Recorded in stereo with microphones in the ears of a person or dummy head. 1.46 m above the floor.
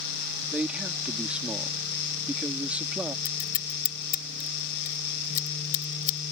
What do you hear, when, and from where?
0.5 s a man speaking: 5° right (ahead or behind)
3.2 s scissors: 45° left (ahead or behind)